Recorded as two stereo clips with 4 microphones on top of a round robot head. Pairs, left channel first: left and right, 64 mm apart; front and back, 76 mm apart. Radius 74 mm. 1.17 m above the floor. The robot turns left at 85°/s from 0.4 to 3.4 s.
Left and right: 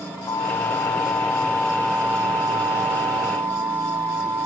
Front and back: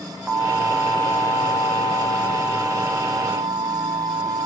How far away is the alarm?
About 2 m.